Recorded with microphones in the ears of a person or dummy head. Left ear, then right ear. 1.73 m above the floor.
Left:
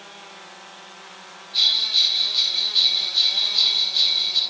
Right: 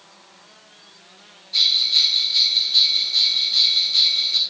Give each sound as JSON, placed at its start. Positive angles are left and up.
{"t": 1.5, "sound": "a bell", "side_deg": -65, "distance_m": 4.5}